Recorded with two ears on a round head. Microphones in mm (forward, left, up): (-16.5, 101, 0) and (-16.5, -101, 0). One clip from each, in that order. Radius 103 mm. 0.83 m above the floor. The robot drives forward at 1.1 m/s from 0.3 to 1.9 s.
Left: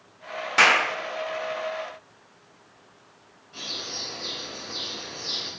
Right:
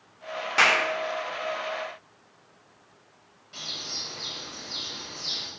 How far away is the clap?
About 2.5 m.